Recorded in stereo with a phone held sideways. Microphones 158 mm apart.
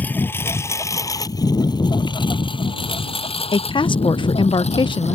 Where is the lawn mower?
10° left (ahead or behind); by 5.2 s 45° left (ahead or behind).